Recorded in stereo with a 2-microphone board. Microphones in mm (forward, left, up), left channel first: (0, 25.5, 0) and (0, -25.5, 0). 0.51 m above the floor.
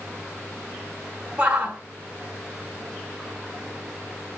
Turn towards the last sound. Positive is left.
turn(degrees=-20)  # may be behind; listen again after turning